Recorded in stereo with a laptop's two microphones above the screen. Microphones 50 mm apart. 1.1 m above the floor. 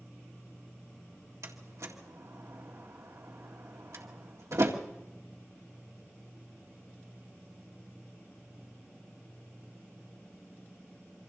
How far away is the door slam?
About 1.9 m.